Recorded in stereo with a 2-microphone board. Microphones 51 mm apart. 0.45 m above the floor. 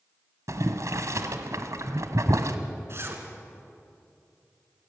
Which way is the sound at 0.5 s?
75° right (ahead or behind).